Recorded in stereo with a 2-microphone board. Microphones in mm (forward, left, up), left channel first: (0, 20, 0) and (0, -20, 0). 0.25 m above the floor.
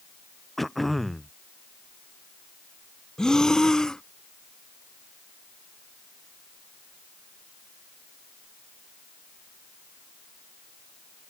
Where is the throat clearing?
Centre (ahead or behind).